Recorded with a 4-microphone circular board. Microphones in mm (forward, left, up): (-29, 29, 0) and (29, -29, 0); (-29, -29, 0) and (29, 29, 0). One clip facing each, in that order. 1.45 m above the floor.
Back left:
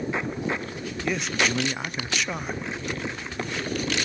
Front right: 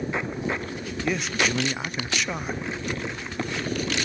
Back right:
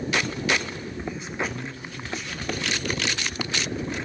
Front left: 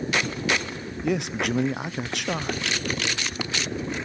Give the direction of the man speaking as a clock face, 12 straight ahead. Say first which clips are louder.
Even, front left 7 dB; 10 o'clock.